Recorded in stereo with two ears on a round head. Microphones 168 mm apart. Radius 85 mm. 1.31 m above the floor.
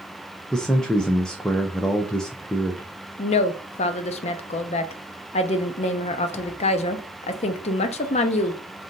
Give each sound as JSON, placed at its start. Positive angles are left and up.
{"t": 0.5, "sound": "a man speaking", "side_deg": 5, "distance_m": 0.5}
{"t": 3.2, "sound": "a woman speaking", "side_deg": 35, "distance_m": 0.5}